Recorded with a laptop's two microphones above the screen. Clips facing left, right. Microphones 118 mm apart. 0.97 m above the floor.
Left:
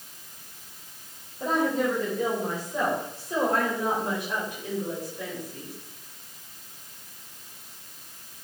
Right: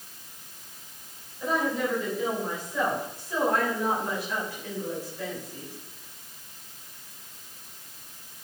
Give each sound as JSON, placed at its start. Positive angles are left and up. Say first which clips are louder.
{"t": 1.4, "sound": "a woman speaking", "louder": "left 2 dB", "side_deg": 45, "distance_m": 5.0}